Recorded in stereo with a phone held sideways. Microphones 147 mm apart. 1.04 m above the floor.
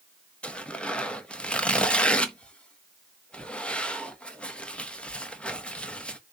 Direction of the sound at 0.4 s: 10° left (ahead or behind).